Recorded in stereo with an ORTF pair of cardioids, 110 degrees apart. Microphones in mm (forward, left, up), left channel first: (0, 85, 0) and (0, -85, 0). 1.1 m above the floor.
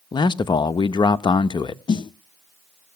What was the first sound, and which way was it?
A man speaking, 25° left.